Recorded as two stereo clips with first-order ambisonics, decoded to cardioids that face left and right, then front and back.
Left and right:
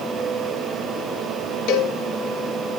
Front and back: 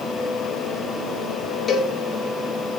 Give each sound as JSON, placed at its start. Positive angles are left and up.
{"t": 1.7, "sound": "a cowbell", "azimuth_deg": 70, "distance_m": 1.9}